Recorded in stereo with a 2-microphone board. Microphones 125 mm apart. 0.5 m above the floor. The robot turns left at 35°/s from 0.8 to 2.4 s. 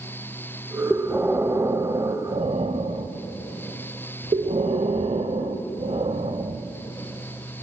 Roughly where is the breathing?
Ahead.